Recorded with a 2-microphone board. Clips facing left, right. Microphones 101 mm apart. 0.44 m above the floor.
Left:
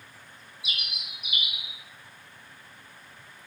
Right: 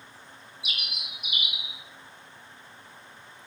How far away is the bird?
About 0.9 m.